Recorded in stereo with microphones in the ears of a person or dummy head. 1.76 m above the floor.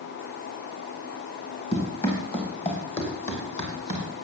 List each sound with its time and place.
1.7 s running footsteps: 45° left (ahead or behind), 4 m; by 4.1 s 40° left (ahead or behind), 3 m